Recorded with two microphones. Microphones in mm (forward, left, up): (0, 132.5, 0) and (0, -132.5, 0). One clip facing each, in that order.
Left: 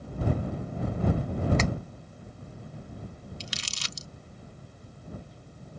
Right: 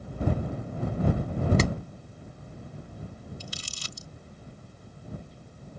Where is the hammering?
40° right (ahead or behind).